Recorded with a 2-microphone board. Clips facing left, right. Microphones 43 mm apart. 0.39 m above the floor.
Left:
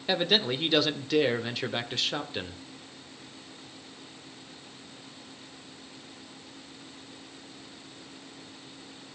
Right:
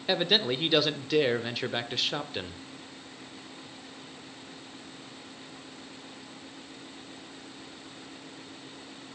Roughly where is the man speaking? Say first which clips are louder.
Even; centre.